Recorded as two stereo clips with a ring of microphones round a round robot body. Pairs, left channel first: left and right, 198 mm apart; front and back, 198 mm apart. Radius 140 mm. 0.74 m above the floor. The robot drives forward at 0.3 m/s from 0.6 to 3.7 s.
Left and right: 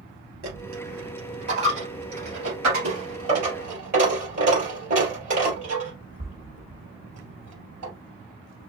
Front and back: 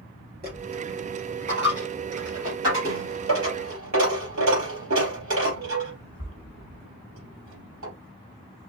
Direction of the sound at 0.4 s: 120° right.